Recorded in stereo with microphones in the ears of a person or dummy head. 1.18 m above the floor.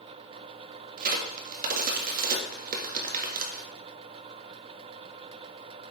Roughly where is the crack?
Right.